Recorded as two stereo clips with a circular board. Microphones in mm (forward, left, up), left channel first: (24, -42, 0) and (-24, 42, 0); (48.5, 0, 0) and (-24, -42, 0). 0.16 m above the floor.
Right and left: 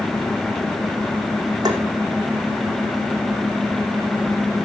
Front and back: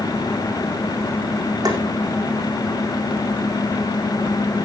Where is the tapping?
170° left, 3.5 m.